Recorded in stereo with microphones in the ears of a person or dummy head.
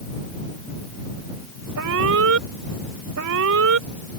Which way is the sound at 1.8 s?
80° right.